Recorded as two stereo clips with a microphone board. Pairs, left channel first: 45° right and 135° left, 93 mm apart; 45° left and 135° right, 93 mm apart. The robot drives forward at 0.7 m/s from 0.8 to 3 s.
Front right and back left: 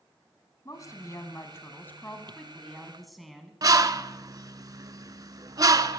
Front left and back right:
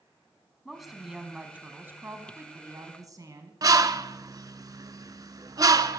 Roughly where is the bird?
Behind.